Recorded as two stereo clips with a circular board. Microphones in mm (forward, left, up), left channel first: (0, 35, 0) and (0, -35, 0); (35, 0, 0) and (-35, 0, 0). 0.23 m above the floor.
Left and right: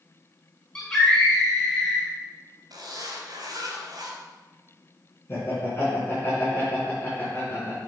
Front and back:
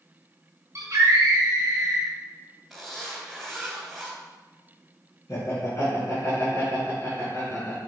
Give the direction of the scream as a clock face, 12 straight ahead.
7 o'clock.